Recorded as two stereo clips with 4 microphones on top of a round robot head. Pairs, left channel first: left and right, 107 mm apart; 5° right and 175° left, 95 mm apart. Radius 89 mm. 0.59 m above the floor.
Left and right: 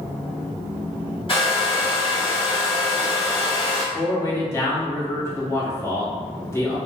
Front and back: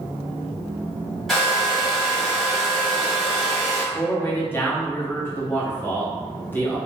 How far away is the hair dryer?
About 1.8 m.